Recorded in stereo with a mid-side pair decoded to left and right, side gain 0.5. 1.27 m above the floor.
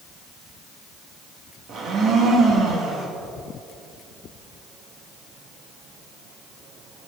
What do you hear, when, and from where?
1.7 s a blender: 60° right, 2 m